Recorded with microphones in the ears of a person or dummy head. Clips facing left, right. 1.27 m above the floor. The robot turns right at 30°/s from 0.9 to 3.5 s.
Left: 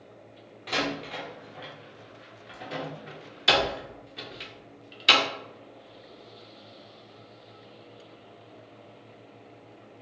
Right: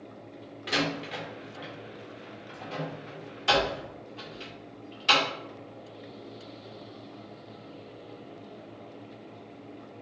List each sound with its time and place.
0.7 s a door slam: 10° right (ahead or behind), 0.5 m; by 5.2 s 25° left (ahead or behind), 0.5 m